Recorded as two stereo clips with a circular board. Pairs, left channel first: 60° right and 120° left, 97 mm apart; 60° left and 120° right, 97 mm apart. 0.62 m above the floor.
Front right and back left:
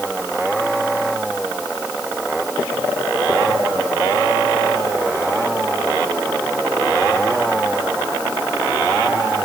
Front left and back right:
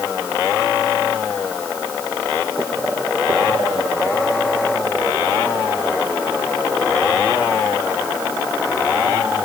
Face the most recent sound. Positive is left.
No sound to turn to.